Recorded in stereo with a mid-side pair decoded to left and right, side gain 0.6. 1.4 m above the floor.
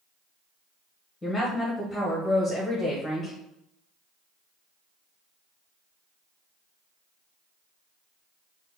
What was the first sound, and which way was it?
A woman speaking, 15° left.